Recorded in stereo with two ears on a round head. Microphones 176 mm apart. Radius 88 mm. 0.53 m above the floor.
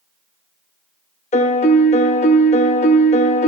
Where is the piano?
35° left (ahead or behind), 0.7 m.